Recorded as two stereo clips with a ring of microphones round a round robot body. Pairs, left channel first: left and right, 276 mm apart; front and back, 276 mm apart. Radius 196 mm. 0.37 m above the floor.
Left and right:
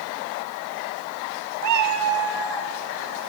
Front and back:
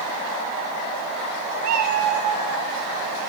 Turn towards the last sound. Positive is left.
turn(degrees=-150)